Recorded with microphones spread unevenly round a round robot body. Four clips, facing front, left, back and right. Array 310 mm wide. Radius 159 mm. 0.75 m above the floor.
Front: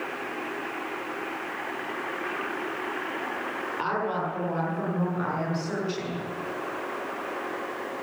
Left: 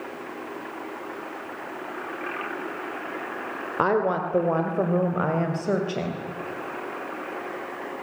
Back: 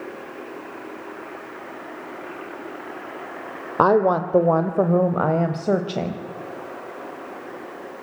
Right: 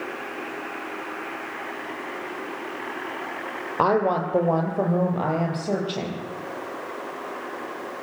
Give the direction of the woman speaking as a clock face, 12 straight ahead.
6 o'clock.